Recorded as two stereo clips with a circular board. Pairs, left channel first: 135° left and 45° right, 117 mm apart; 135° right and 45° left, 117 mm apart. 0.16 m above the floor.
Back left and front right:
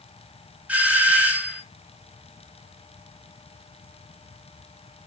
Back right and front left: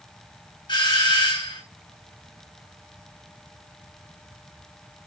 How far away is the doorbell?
About 1.9 m.